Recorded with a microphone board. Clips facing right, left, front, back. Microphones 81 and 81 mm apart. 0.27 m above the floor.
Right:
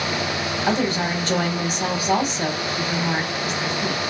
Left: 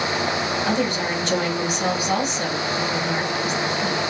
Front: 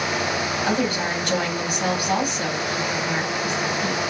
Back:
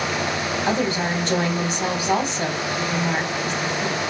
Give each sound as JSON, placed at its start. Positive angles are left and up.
{"t": 0.7, "sound": "a woman speaking", "azimuth_deg": -130, "distance_m": 1.4}